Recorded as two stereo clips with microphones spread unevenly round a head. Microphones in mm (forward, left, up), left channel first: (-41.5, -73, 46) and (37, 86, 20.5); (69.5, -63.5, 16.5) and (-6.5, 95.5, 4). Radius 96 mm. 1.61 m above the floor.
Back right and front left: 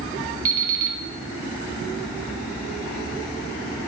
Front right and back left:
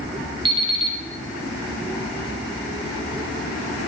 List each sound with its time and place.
0.5 s an alarm clock: 70° left, 1.0 m